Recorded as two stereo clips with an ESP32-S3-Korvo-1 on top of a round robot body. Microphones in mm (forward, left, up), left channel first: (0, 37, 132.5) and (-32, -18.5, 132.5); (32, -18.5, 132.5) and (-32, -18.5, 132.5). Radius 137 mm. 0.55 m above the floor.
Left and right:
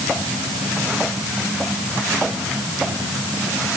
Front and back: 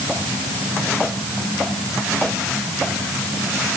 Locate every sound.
Only background noise.